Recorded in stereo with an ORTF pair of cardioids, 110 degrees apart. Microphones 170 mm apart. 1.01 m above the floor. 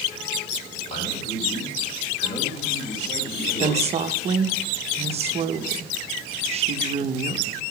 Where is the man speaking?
40° left, 3.5 m.